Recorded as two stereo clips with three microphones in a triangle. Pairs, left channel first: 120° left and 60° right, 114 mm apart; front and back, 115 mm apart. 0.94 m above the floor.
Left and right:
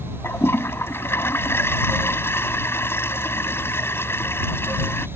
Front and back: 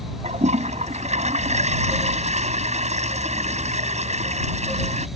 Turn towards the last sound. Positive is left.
turn(degrees=-170)